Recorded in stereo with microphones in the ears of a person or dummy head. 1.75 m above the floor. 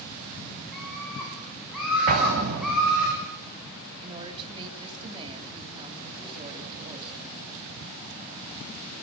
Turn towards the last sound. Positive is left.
turn(degrees=-35)  # may be behind; listen again after turning